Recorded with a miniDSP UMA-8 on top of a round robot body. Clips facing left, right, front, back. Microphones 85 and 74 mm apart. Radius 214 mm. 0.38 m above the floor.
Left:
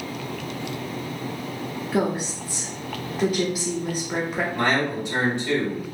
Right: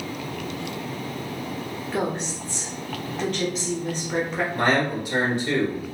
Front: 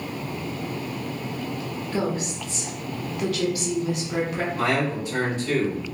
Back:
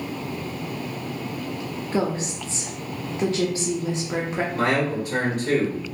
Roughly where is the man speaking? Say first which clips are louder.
Right 2 dB, back 2 dB; behind.